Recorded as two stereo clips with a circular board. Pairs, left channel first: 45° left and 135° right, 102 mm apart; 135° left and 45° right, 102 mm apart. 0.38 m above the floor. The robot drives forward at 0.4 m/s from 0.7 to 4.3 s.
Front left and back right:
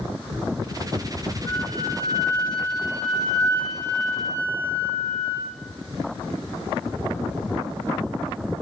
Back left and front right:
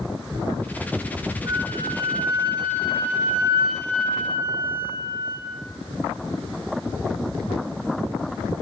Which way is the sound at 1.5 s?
Straight ahead.